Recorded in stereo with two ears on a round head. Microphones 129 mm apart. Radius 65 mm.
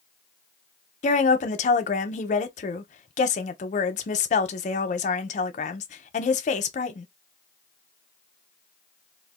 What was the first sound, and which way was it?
A woman speaking, 50° left (ahead or behind).